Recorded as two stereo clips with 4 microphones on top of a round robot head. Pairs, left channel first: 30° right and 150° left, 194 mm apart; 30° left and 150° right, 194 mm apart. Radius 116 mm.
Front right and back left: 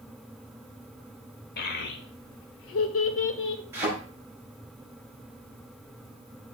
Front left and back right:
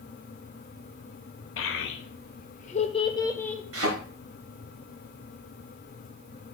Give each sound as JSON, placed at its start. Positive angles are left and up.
{"t": 1.6, "sound": "a child speaking", "azimuth_deg": 10, "distance_m": 1.1}
{"t": 3.7, "sound": "a thud", "azimuth_deg": -130, "distance_m": 4.0}